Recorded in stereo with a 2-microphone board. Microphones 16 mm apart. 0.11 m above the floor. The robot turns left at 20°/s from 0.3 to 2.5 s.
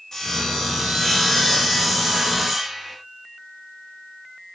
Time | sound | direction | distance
0.1 | sawing | 40° left | 9.5 m